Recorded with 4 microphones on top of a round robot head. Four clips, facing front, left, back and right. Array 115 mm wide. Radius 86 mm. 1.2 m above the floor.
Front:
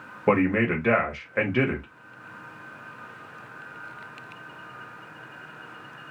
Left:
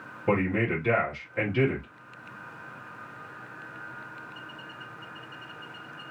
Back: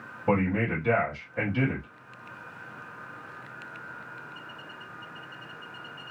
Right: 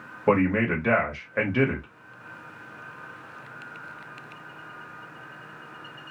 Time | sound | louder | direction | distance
0.3 | a man speaking | right 4 dB, front 4 dB | 40° right | 1.3 m